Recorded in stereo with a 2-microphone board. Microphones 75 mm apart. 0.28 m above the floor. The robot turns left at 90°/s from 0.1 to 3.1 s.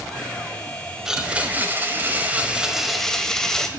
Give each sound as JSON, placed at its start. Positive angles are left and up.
{"t": 1.1, "sound": "a blender", "side_deg": -5, "distance_m": 1.3}